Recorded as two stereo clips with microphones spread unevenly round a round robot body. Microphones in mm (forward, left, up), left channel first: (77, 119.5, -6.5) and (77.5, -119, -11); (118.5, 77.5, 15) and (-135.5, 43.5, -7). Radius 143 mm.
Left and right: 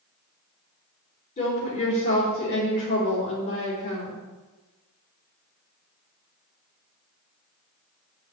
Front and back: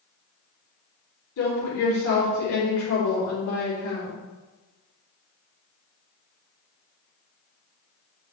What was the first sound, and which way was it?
A woman speaking, 35° left.